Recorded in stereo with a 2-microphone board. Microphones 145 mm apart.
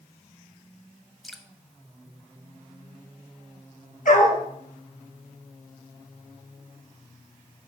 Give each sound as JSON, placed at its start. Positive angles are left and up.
{"t": 1.2, "sound": "dripping", "side_deg": 0, "distance_m": 0.8}
{"t": 4.0, "sound": "a dog barking", "side_deg": 70, "distance_m": 2.5}